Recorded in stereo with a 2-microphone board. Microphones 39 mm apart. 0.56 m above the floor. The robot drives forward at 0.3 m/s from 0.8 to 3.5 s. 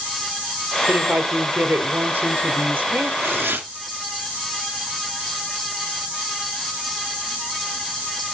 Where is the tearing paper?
65° right (ahead or behind), 2 m.